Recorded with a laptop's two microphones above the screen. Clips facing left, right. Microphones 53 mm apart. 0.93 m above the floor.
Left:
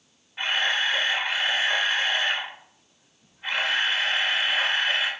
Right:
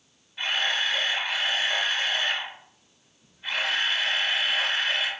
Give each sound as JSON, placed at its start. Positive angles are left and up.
{"t": 0.4, "sound": "a camera shutter", "side_deg": 35, "distance_m": 1.3}